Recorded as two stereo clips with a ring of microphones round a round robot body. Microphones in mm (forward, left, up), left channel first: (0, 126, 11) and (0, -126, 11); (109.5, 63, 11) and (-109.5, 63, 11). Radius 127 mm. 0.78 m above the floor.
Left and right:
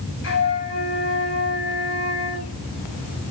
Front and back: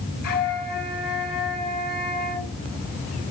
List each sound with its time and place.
0.2 s a flute: 40° left, 6.5 m